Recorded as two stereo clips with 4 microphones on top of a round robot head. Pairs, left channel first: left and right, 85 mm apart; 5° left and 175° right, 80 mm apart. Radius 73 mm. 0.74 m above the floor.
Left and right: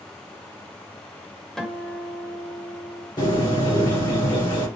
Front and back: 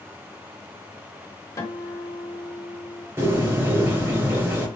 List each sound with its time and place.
1.6 s a guitar: 5° left, 1.4 m
3.2 s a bird: 130° left, 2.5 m